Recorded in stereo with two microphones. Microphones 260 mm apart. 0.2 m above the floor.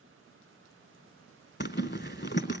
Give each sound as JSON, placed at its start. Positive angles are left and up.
{"t": 1.6, "sound": "a zipper", "side_deg": 40, "distance_m": 0.7}